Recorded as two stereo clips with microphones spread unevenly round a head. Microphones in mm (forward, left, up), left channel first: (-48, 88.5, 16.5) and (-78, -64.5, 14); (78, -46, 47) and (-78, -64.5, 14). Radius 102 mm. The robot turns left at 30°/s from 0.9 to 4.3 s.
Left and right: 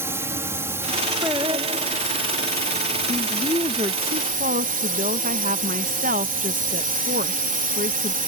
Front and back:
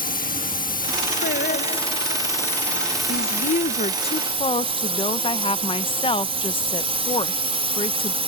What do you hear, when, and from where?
0.0 s a drone: 25° right; by 8.3 s 125° right
1.2 s singing: 20° right; by 2.3 s 55° right
3.1 s a woman speaking: 20° right; by 8.2 s 55° right